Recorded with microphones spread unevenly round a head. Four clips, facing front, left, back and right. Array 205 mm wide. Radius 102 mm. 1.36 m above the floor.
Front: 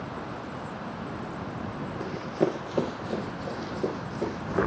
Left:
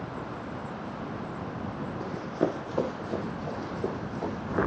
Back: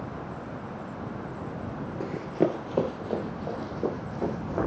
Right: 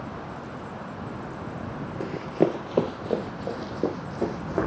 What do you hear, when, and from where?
2.0 s running footsteps: 105° right, 1.6 m; by 4.7 s 90° right, 5 m